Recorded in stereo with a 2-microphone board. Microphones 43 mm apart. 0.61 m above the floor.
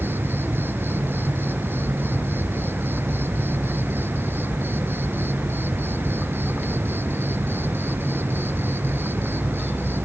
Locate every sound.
0.0 s an insect: 55° right (ahead or behind)